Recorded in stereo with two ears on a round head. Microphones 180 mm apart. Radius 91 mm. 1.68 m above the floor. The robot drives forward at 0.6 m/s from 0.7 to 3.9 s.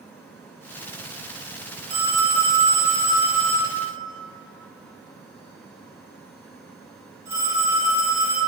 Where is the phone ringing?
25° right (ahead or behind), 0.9 m; by 8.4 s 15° right (ahead or behind), 1.8 m.